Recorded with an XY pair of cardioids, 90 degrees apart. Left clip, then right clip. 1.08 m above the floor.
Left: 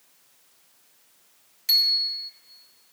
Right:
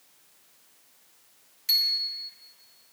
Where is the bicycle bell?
20° left, 2.5 m.